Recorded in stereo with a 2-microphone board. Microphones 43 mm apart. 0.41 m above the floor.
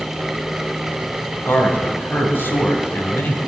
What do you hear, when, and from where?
1.4 s a man speaking: 60° left (ahead or behind), 3.5 m